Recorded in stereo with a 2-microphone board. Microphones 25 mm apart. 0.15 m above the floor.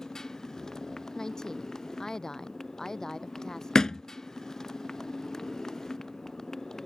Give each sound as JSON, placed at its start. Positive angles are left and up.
{"t": 0.0, "sound": "a motorcycle", "side_deg": 20}
{"t": 1.1, "sound": "a woman speaking", "side_deg": 25}
{"t": 3.8, "sound": "a thud", "side_deg": 30}